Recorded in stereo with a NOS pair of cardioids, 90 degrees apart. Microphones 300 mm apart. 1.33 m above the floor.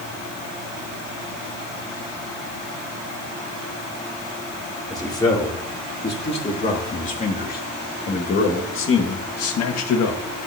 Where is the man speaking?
15° left, 3.5 m; by 10.2 s 65° left, 1.7 m.